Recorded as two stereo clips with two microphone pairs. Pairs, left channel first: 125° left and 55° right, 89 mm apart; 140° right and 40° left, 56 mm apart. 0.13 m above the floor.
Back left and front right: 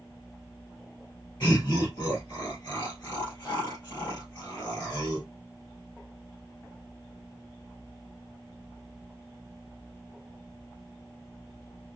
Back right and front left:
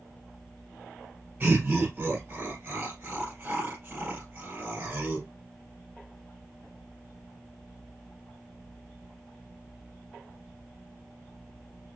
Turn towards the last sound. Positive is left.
turn(degrees=70)